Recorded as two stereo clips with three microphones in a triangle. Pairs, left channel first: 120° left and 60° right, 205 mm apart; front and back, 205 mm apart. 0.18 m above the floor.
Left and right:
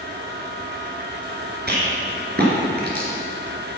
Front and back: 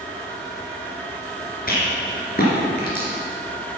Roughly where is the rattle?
Ahead right.